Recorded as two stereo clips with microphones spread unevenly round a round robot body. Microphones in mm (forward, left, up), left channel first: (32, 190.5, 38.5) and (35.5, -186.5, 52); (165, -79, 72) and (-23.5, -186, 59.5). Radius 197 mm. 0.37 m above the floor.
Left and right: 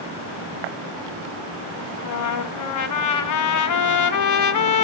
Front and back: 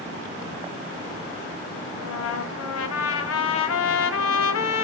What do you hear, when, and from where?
2.0 s a trumpet: 50° left, 1.1 m